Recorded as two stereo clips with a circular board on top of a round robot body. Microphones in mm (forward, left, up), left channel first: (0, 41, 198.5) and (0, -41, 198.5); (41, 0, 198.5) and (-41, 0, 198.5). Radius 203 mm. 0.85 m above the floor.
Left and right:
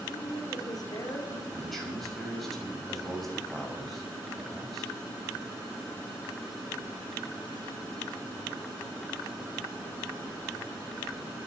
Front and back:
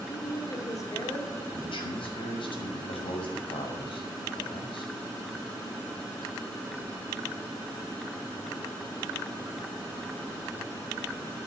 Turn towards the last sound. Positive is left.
turn(degrees=0)